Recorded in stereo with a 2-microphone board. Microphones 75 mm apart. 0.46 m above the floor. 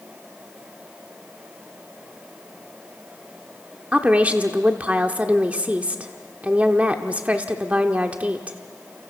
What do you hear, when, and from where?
3.9 s a woman speaking: 20° right (ahead or behind), 1.0 m